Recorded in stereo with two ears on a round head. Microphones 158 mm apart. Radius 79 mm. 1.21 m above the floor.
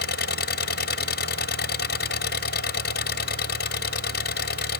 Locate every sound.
0.0 s an engine running: 60° left (ahead or behind)